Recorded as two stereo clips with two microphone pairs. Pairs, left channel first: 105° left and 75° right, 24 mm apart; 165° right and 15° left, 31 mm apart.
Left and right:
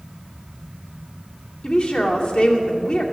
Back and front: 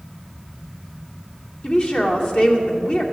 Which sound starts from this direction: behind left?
A woman speaking, at 1.6 s.